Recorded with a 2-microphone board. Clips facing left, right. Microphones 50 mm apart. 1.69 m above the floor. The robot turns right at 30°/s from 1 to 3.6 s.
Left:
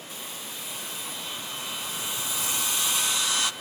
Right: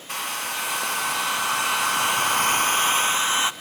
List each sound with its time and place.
0.1 s a hair dryer: 105° right, 0.6 m; by 3.5 s 30° right, 0.6 m